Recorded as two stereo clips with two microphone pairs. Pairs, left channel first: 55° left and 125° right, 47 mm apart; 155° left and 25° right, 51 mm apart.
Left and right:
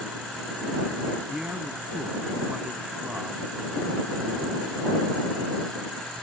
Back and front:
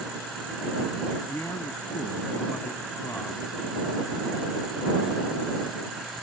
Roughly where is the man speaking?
Behind.